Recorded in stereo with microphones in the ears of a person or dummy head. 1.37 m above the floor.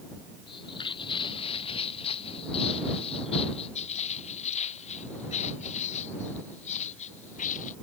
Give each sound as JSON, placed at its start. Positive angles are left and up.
{"t": 0.5, "sound": "footsteps", "side_deg": 30}